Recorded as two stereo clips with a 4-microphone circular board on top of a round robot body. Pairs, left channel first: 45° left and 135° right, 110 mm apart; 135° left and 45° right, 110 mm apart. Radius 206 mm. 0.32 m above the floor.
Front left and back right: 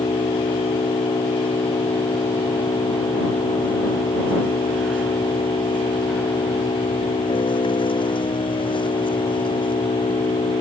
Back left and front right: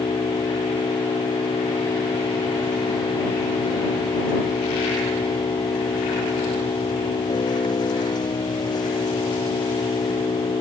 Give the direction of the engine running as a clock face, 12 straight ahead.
9 o'clock.